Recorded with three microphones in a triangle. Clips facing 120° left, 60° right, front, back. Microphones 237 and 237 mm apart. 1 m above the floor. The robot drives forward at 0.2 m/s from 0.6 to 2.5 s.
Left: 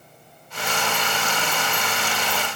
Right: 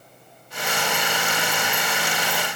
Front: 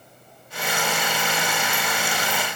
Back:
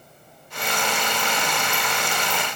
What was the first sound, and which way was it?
Only background noise.